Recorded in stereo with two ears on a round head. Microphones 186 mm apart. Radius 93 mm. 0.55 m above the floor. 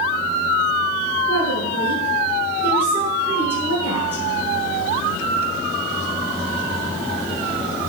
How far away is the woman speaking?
About 7.5 m.